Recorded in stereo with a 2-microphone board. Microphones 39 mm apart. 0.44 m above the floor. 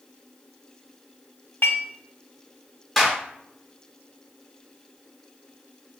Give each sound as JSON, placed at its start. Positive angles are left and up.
{"t": 1.6, "sound": "dishes clattering", "side_deg": 70, "distance_m": 1.5}
{"t": 3.0, "sound": "a clap", "side_deg": 0, "distance_m": 0.9}